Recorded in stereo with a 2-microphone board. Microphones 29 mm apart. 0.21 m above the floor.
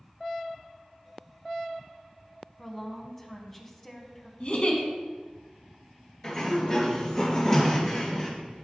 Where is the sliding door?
30° left (ahead or behind), 2.5 m.